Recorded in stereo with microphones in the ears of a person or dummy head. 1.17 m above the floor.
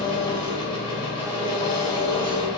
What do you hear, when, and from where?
0.0 s an engine running: 30° left (ahead or behind), 1.1 m